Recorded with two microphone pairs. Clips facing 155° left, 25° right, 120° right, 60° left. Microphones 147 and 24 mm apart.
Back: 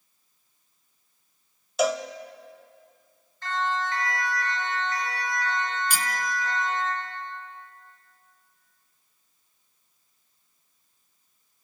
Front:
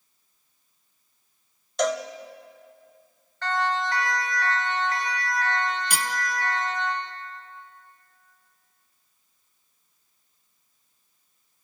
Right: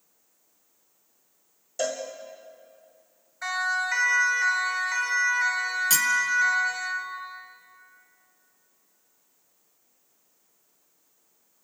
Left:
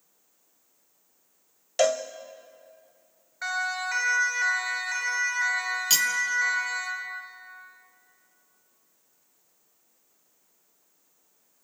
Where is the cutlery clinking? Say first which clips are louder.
Front 1 dB, left 1 dB; 5° left, 1.3 m.